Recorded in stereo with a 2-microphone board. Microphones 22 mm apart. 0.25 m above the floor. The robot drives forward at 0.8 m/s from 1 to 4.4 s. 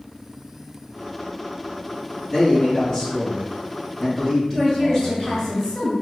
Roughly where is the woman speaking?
Centre.